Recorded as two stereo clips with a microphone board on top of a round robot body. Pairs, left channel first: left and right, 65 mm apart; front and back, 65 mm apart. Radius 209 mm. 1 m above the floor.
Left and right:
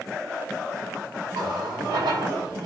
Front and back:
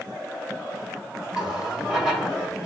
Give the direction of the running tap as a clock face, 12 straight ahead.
3 o'clock.